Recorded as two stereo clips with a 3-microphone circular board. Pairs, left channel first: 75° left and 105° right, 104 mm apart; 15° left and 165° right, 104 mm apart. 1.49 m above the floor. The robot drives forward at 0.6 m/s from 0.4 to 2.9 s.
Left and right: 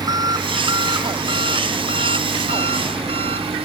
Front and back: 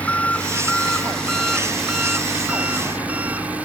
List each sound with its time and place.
0.0 s an engine running: 60° right; by 3.7 s 90° right